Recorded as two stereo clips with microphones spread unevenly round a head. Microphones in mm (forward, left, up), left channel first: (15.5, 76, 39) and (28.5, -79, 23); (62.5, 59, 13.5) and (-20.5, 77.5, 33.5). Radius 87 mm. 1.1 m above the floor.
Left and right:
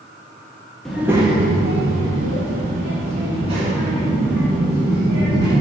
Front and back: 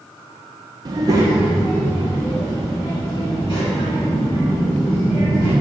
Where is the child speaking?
175° left, 0.5 m; by 5.5 s 70° right, 2.5 m.